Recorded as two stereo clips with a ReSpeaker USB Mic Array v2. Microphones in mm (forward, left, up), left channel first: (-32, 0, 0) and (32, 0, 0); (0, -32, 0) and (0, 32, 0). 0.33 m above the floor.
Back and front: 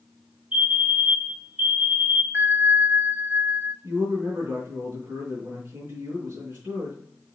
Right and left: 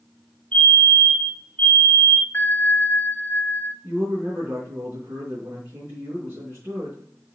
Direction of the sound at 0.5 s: 40° right.